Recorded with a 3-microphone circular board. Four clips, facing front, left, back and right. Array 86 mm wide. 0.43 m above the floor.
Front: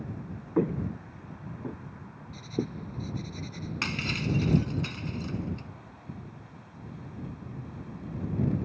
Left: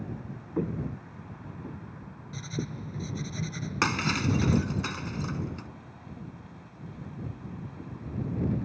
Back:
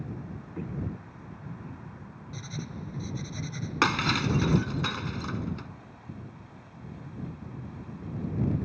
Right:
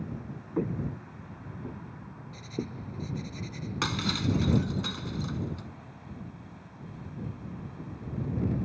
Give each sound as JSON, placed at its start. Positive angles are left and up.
{"t": 0.6, "sound": "footsteps", "azimuth_deg": 0}
{"t": 2.3, "sound": "writing", "azimuth_deg": 120}
{"t": 3.8, "sound": "breaking glass", "azimuth_deg": 165}